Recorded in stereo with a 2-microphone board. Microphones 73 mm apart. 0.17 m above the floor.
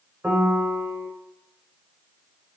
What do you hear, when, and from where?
0.2 s a piano: 15° right (ahead or behind), 0.7 m